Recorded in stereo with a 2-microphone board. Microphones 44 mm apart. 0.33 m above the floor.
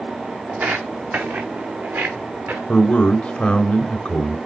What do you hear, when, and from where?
0.5 s footsteps: 45° right (ahead or behind), 0.8 m; by 2.6 s 55° right (ahead or behind), 1.8 m
2.7 s a man speaking: 25° left (ahead or behind), 1.2 m